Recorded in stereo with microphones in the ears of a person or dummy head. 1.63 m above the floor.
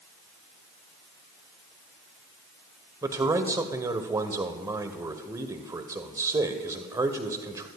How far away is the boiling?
I don't hear boiling.